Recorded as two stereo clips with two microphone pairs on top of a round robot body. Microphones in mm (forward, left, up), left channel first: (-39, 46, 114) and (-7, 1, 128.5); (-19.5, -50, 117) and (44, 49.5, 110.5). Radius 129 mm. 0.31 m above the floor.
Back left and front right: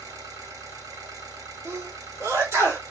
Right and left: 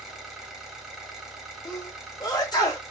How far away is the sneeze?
About 1.7 m.